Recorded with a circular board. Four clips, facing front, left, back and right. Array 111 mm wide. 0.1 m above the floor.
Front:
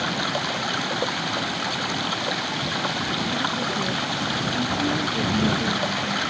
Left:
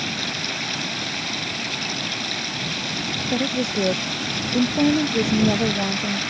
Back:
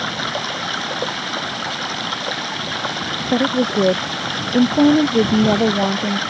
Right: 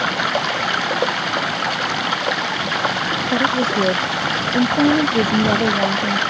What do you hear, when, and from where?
0.0 s running water: 100° right
3.3 s a woman speaking: 170° right